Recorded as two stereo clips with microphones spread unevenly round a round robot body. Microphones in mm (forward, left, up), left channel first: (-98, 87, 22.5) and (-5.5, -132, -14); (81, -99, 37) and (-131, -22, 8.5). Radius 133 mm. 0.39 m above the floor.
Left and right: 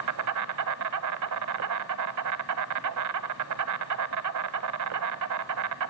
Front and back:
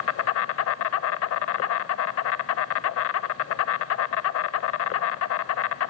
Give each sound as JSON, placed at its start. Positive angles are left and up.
{"t": 0.0, "sound": "an insect", "azimuth_deg": -45, "distance_m": 0.7}